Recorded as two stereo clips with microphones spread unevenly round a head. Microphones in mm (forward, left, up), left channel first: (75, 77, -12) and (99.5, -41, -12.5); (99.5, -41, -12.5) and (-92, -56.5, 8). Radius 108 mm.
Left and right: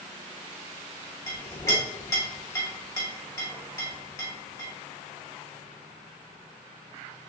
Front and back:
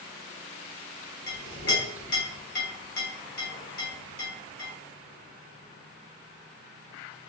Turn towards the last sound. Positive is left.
turn(degrees=45)